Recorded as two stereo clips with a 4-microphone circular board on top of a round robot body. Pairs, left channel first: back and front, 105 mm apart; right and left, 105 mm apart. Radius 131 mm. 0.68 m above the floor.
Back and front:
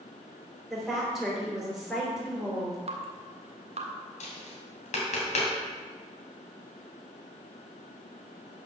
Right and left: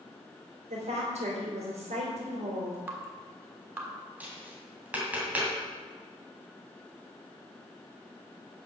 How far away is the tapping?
About 2.5 m.